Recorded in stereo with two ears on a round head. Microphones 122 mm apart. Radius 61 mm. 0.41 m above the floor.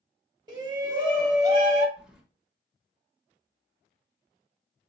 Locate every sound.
0.5 s a shout: 30° right (ahead or behind), 1.1 m
2.0 s keys jangling: 5° right (ahead or behind), 1.1 m